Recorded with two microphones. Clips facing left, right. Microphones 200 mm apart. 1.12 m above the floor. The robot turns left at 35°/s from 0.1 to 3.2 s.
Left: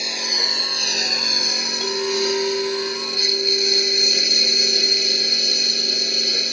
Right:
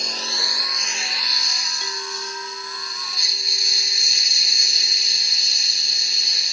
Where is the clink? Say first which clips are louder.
Left 15 dB; 130° left; by 6.4 s 80° left.